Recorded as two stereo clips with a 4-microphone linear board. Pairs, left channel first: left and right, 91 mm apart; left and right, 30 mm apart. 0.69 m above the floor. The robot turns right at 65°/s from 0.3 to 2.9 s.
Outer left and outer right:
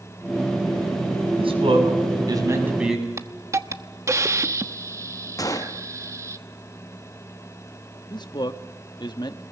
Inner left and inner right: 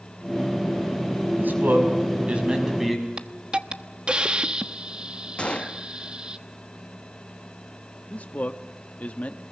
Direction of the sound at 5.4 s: 40° left (ahead or behind).